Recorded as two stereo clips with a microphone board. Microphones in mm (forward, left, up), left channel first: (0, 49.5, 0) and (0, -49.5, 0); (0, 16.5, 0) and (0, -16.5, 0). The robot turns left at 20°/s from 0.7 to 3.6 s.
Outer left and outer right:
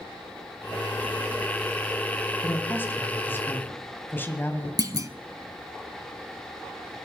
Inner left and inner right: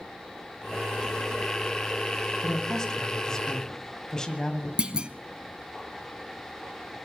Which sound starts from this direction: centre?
A man speaking, at 2.4 s.